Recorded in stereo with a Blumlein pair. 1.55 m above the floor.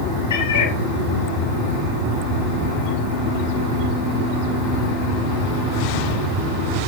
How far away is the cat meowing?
About 3 m.